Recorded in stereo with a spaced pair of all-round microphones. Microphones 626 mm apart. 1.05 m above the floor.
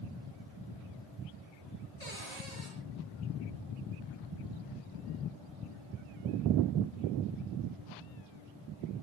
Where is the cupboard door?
85° left, 7 m.